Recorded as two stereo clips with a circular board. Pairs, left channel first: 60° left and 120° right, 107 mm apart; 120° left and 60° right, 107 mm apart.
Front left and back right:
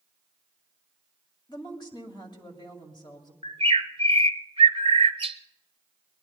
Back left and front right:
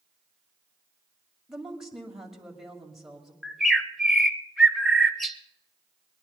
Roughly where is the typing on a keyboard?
No typing on a keyboard in this recording.